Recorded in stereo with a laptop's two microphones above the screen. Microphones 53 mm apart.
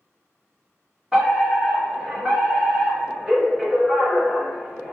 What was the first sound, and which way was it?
A fire alarm, 20° right (ahead or behind).